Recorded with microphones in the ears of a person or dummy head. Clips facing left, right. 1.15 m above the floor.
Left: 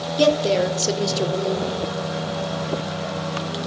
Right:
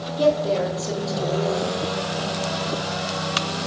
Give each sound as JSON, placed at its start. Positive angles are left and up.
{"t": 0.2, "sound": "a woman speaking", "side_deg": 35, "distance_m": 0.8}